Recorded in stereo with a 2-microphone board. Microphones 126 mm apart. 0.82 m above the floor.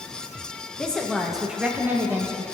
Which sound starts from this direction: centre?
A woman speaking, at 0.8 s.